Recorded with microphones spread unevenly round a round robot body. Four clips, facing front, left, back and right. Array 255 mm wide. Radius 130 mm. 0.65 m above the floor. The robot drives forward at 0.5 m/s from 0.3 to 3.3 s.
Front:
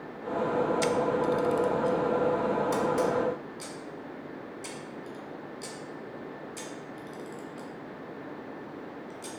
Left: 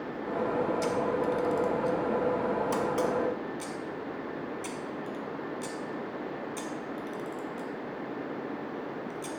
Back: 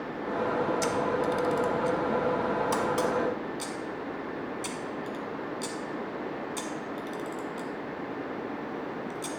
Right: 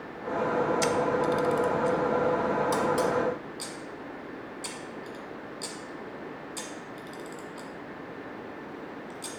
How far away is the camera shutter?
About 0.6 m.